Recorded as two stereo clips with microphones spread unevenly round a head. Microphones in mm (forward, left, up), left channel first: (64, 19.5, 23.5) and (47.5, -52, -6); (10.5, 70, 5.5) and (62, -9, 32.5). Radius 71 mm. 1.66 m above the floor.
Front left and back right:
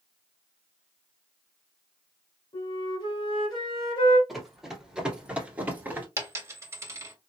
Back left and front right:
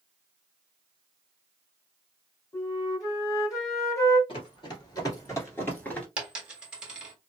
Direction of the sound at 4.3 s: 120° left.